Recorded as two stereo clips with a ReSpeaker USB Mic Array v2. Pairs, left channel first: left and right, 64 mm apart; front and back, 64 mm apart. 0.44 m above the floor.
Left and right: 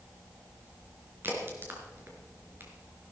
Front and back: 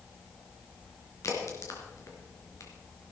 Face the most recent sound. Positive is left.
turn(degrees=-35)